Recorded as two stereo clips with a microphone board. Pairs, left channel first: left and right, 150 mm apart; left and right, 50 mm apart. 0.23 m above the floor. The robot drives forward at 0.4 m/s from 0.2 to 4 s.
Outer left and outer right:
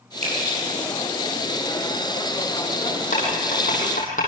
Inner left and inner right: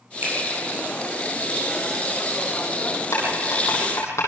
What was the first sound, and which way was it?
A finger snap, 45° right (ahead or behind).